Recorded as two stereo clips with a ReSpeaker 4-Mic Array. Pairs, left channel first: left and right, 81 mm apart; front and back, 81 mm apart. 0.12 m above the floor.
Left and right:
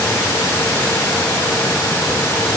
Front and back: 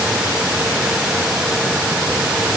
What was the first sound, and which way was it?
Only background noise.